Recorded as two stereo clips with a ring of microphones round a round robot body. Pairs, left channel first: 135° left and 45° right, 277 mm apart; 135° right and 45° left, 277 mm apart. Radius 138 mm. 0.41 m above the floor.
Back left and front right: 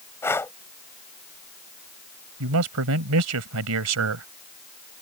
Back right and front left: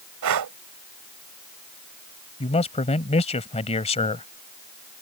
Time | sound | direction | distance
0.2 | breathing | 55° left | ?
2.4 | a man speaking | 70° right | ?